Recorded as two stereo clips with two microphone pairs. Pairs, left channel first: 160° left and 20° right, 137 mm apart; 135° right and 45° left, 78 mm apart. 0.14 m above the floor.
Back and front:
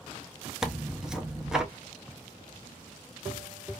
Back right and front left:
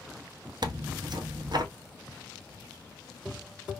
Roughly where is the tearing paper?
Ahead left.